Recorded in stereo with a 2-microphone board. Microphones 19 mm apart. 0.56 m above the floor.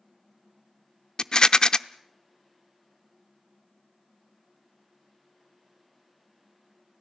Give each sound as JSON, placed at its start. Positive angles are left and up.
{"t": 1.2, "sound": "a rattle", "side_deg": 50, "distance_m": 0.5}